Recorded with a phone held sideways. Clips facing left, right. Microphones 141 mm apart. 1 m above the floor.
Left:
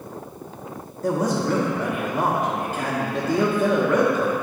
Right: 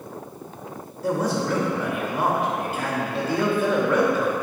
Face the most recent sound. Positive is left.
turn(degrees=45)  # may be behind; listen again after turning